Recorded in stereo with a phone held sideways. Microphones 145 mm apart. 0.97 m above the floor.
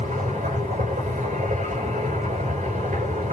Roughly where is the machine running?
Right.